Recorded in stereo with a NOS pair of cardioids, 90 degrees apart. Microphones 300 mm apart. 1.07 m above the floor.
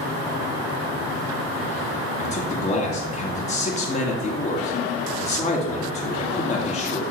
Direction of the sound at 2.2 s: 20° left.